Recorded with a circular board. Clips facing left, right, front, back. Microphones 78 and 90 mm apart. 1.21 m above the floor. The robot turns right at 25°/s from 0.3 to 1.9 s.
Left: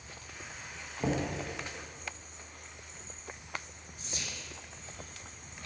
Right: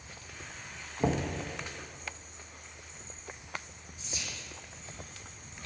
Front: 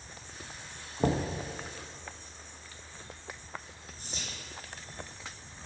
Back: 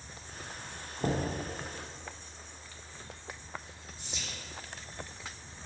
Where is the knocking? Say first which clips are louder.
Right 2 dB, front 3 dB; 20° right, 1.1 m; by 1.3 s 10° right, 1.1 m.